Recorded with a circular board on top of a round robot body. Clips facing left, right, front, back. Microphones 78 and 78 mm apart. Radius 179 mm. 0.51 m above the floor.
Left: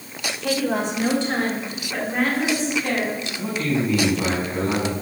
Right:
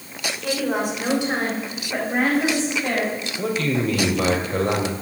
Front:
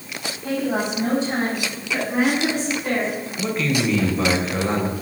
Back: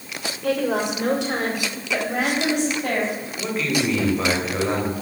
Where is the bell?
No bell in this recording.